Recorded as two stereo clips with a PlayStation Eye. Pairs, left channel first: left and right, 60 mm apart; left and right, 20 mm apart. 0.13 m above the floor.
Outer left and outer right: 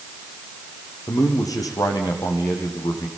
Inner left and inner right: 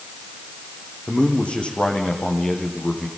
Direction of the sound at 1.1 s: 75° left (ahead or behind).